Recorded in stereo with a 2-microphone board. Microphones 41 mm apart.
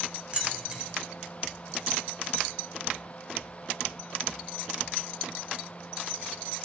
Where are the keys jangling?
30° right (ahead or behind), 0.7 m.